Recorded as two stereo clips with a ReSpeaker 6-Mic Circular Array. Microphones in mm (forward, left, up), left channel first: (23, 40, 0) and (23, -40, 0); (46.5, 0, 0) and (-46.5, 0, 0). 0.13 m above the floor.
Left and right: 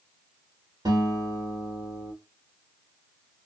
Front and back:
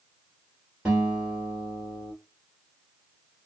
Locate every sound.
0.8 s a guitar: 100° right, 2.5 m